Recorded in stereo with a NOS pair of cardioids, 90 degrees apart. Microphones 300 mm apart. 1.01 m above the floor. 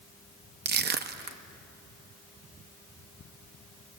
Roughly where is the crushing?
Ahead right.